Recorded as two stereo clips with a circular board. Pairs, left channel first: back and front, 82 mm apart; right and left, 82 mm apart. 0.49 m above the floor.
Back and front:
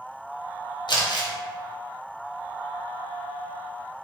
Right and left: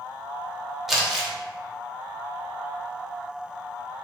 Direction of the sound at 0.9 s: 175° left.